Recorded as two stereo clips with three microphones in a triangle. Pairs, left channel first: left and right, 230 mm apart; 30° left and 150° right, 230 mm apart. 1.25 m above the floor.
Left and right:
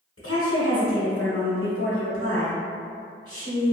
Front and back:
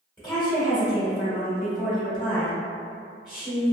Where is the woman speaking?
100° left, 0.8 m.